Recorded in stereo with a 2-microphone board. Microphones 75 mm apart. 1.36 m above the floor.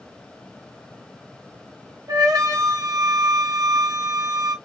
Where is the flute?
55° right (ahead or behind), 0.9 m.